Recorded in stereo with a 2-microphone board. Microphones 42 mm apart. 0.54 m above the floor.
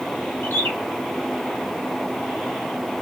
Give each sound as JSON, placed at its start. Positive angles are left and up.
{"t": 0.4, "sound": "a bird", "side_deg": 65, "distance_m": 1.3}